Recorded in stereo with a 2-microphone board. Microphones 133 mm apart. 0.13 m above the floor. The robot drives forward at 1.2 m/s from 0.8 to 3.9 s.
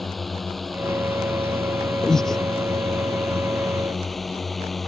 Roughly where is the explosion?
No explosion in this recording.